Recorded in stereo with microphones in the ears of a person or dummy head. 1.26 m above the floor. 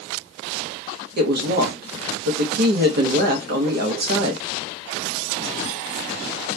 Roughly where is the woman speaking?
Right.